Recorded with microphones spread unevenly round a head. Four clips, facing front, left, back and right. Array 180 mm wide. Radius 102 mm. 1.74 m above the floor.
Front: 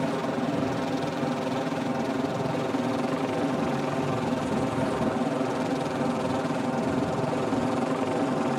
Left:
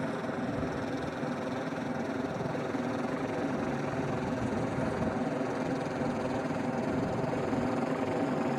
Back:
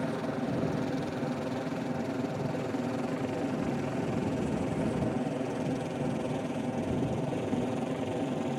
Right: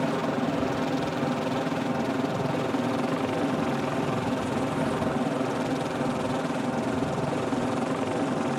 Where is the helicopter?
35° right; by 8.6 s 10° right.